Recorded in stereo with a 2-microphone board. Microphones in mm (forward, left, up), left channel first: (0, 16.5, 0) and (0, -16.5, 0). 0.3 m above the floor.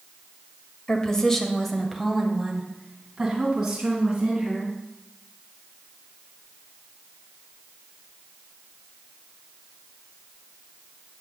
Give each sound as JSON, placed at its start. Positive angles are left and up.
{"t": 0.9, "sound": "a woman speaking", "side_deg": 20, "distance_m": 1.2}